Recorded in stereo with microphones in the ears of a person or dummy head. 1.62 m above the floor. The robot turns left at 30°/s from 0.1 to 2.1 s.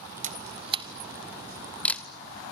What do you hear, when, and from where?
0.2 s a camera shutter: 40° right (ahead or behind), 0.8 m; by 2.0 s 15° left (ahead or behind), 0.8 m